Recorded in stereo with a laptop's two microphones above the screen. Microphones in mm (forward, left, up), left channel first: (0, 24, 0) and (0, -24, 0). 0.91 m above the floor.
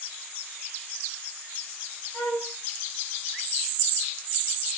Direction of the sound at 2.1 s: Centre (ahead or behind).